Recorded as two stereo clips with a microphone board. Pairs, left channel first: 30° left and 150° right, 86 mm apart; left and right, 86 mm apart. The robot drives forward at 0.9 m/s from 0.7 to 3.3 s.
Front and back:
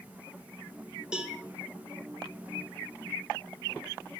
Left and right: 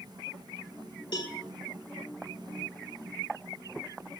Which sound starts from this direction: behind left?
A cowbell, at 1.1 s.